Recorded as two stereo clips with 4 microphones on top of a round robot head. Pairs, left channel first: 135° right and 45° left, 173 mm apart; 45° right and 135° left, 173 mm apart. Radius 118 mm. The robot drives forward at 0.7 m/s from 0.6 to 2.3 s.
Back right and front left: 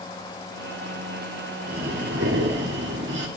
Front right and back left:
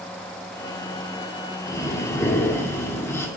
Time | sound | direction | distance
1.7 | breathing | 25° left | 3.5 m